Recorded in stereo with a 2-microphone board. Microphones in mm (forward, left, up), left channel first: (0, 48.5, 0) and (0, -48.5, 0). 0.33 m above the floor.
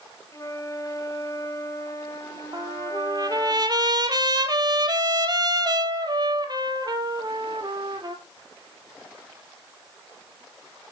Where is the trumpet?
45° right (ahead or behind), 1.4 m.